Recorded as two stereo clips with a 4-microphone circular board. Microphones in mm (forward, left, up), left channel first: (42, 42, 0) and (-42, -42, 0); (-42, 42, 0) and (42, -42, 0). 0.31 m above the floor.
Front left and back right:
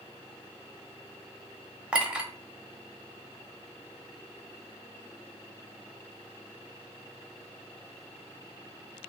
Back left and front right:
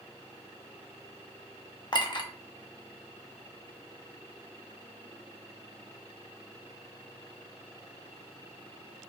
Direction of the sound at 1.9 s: 150° left.